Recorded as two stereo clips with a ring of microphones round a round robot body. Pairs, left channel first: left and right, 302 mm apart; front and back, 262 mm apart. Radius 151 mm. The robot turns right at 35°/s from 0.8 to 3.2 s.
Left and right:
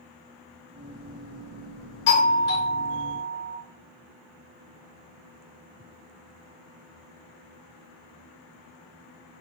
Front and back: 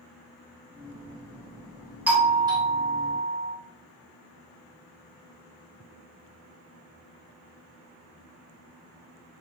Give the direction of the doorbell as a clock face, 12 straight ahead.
9 o'clock.